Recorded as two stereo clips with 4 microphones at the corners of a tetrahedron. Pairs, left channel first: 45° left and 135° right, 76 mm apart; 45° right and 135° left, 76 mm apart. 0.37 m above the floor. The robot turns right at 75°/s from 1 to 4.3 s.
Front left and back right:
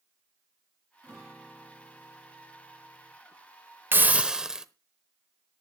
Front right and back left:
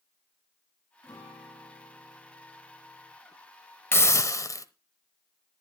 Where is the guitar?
65° right, 7.5 m; by 3.1 s 95° left, 7.5 m.